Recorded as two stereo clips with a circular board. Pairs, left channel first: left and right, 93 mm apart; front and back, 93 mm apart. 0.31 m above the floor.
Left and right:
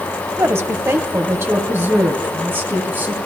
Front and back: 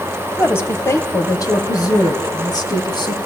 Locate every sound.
0.4 s a woman speaking: 50° right, 1.9 m; by 3.2 s 25° right, 3 m